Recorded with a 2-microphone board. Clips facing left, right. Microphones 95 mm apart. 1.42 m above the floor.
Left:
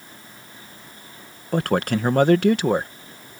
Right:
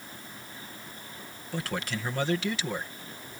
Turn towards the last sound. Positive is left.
turn(degrees=55)  # may be behind; listen again after turning